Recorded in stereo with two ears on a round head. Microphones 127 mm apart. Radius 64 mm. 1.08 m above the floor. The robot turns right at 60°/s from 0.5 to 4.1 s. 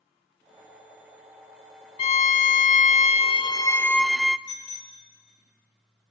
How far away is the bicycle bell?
About 3.5 m.